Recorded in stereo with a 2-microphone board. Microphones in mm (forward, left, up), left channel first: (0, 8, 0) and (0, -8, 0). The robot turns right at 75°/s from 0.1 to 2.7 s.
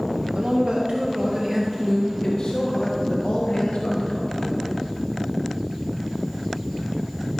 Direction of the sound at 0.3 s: 105° right.